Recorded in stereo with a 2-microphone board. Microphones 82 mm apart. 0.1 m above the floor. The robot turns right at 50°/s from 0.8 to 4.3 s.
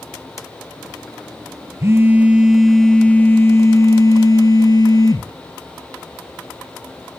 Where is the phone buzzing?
45° right, 0.7 m; by 5.3 s 80° left, 0.7 m.